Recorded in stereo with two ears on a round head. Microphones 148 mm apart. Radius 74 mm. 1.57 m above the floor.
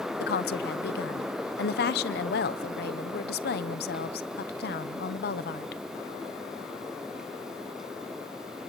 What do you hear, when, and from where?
0.2 s a woman speaking: 65° left (ahead or behind), 0.9 m